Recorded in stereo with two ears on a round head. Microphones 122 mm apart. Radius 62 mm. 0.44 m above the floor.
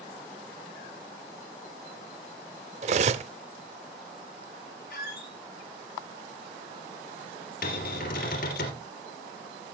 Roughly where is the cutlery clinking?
Right.